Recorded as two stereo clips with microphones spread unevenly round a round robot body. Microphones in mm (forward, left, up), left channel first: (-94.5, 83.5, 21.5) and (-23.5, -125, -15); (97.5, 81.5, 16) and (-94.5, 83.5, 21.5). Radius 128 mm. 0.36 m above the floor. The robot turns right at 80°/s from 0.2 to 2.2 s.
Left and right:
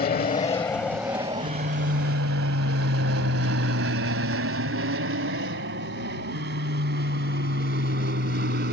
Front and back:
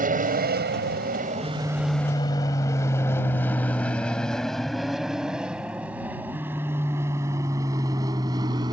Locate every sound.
0.0 s an aircraft: 155° left; by 8.7 s 110° right